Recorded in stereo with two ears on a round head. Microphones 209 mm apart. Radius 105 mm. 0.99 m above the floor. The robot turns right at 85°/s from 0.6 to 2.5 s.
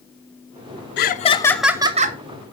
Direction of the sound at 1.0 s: 125° left.